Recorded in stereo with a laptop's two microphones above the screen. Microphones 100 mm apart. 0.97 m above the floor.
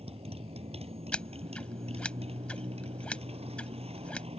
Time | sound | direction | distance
0.0 | a motorcycle | 85° right | ?
1.1 | scissors | 10° left (ahead or behind) | ?